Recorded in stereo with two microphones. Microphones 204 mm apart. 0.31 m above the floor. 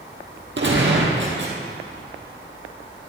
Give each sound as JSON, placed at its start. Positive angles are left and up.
{"t": 0.6, "sound": "a gunshot", "side_deg": -60, "distance_m": 2.0}